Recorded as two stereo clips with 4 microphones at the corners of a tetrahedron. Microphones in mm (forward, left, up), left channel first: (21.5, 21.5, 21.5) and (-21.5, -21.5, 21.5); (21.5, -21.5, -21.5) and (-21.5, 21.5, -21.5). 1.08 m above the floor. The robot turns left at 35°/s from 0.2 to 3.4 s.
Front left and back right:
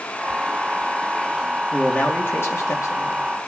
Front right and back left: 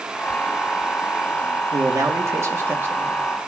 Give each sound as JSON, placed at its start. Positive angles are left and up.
{"t": 1.7, "sound": "a man speaking", "azimuth_deg": 120, "distance_m": 2.5}